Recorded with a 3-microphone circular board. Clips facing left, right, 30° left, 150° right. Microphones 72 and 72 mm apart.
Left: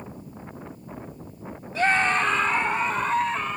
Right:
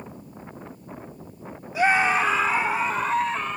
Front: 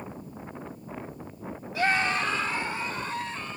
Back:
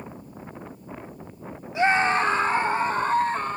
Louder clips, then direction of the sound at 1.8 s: Right 2 dB, back 5 dB; 145° right.